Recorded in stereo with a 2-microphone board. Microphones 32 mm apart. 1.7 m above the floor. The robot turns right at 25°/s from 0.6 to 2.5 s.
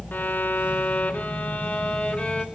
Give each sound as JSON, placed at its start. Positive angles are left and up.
{"t": 0.1, "sound": "a violin", "azimuth_deg": 90, "distance_m": 1.0}